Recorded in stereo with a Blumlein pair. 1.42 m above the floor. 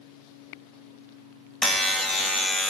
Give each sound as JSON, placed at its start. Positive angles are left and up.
{"t": 1.6, "sound": "a buzzer", "azimuth_deg": 10, "distance_m": 0.8}